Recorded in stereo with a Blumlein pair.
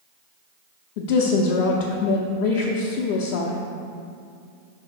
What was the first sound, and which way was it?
A woman speaking, 45° left.